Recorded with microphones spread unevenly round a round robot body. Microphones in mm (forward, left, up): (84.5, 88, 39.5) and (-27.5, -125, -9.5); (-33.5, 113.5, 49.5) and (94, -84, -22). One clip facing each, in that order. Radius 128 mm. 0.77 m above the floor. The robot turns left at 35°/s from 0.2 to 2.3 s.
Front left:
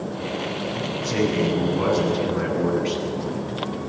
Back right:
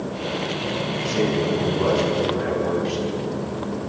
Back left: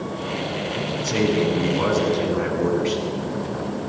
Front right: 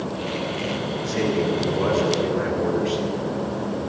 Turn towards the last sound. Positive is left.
turn(degrees=80)